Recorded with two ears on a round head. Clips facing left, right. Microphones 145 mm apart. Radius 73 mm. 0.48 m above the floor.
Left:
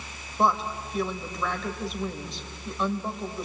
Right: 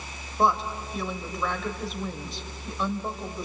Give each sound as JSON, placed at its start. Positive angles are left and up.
{"t": 0.4, "sound": "a woman speaking", "side_deg": 0, "distance_m": 1.8}